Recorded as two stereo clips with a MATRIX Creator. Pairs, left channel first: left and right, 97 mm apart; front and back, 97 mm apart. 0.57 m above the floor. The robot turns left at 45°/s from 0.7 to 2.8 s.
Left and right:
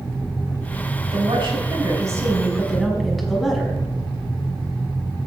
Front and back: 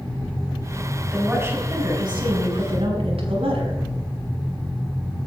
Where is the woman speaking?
105° right, 5 m; by 3.8 s straight behind, 5 m.